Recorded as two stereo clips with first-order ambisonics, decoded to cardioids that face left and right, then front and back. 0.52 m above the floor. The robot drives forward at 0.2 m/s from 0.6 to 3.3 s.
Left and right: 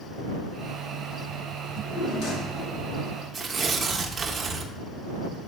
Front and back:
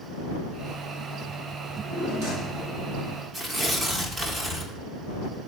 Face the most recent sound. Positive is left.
turn(degrees=-130)